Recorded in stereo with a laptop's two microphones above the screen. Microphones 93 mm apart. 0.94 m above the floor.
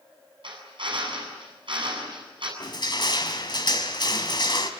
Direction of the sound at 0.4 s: 65° right (ahead or behind).